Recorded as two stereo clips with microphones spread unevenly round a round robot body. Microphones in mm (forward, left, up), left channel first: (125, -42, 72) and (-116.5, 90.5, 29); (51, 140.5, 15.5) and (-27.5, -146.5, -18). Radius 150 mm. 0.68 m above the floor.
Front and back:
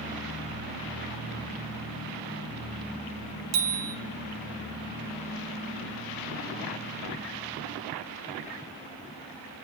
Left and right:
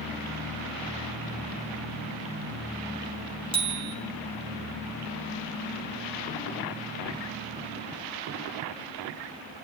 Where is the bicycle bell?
Straight behind, 4 m.